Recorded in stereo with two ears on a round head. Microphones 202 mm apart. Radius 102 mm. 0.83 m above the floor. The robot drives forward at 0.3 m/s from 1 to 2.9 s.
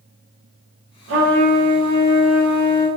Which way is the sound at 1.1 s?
60° right (ahead or behind).